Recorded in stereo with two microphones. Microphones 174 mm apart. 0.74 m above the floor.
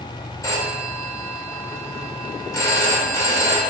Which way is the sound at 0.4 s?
20° left (ahead or behind).